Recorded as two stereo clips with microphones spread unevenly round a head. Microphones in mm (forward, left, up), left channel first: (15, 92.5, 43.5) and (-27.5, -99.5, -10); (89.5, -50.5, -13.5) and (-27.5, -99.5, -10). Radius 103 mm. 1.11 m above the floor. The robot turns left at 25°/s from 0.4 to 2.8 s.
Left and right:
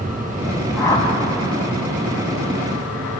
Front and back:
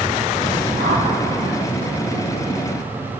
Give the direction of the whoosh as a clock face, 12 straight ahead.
7 o'clock.